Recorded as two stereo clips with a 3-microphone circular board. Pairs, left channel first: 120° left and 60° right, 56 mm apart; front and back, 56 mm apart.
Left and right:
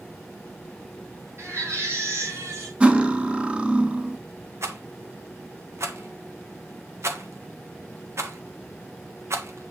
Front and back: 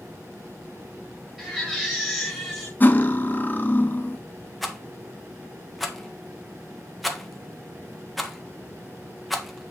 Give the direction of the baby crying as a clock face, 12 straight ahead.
3 o'clock.